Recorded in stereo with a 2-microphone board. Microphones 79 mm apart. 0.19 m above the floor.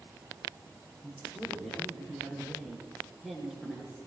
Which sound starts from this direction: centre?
A woman speaking, at 1.0 s.